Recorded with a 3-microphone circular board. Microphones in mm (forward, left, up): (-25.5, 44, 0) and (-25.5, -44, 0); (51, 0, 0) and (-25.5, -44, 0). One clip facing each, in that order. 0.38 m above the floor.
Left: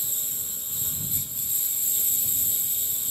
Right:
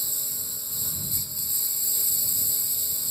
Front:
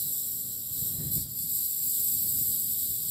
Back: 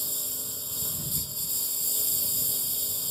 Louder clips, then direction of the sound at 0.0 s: Right 1 dB, back 8 dB; 170° right.